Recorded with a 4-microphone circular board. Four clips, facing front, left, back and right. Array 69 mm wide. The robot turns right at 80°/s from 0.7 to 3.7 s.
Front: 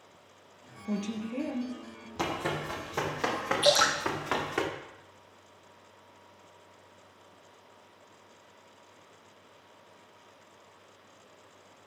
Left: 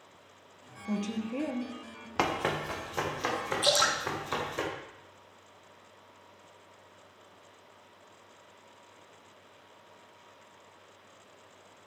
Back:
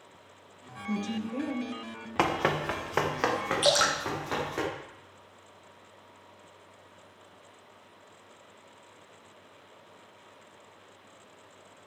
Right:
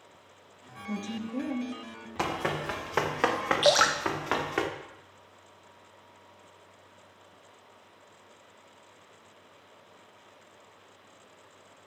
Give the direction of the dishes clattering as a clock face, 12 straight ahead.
No dishes clattering in this recording.